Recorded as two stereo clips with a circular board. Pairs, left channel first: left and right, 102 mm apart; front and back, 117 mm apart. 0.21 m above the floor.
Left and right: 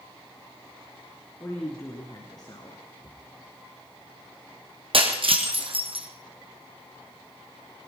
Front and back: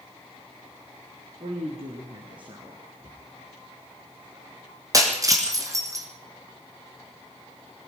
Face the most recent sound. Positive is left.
turn(degrees=-120)